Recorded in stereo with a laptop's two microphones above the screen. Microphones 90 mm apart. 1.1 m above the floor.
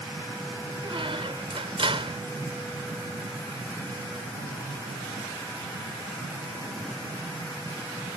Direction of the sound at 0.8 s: 75° right (ahead or behind).